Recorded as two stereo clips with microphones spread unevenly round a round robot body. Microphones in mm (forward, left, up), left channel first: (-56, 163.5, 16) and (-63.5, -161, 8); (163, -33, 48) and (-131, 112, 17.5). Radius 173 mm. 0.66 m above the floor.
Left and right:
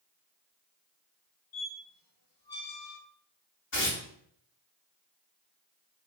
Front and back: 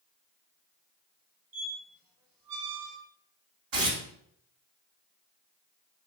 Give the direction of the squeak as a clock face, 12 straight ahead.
8 o'clock.